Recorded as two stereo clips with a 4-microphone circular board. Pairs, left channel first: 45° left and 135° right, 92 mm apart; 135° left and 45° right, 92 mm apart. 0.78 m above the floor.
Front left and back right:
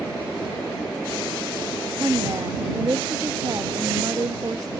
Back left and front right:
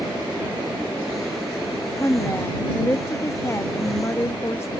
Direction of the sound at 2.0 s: 175° right.